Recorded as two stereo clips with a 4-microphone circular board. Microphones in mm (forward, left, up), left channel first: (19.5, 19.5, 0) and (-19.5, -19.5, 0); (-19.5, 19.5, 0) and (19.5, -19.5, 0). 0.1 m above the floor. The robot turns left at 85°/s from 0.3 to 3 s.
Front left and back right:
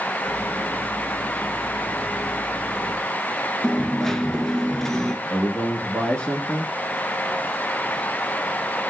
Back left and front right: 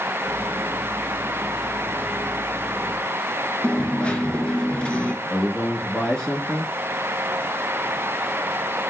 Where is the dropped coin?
115° left, 0.6 m.